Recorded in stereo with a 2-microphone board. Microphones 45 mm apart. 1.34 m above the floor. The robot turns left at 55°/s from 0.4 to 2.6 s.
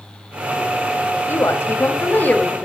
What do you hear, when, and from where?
1.3 s a woman speaking: 95° left, 2 m; by 2.7 s 20° left, 2 m